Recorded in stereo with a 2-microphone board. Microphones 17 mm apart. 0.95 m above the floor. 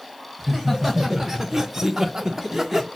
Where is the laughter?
5° right (ahead or behind), 1.3 m; by 2.9 s 20° right (ahead or behind), 1.2 m.